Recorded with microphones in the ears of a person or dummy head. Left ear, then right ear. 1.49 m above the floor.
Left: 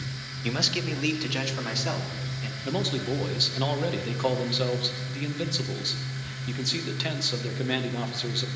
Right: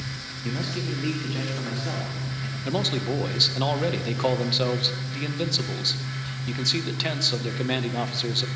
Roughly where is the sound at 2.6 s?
Centre.